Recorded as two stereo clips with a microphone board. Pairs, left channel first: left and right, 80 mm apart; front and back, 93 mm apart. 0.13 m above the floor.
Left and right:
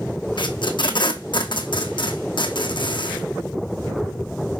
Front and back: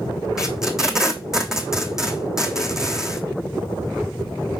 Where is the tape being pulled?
95° left, 1.1 m.